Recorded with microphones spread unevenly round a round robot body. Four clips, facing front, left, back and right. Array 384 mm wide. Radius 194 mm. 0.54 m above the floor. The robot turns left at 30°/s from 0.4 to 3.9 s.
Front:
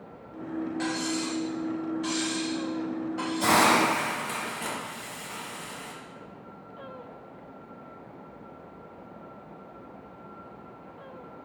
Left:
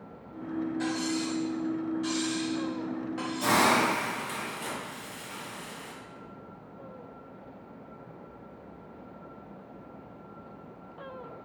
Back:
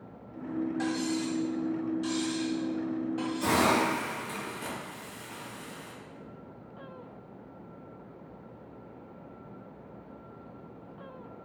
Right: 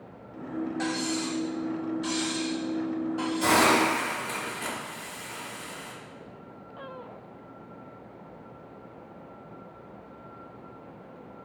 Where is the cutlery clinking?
140° right, 0.8 m; by 3.8 s 130° left, 0.8 m.